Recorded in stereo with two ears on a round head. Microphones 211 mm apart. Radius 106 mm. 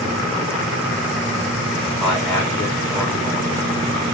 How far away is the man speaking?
About 8 m.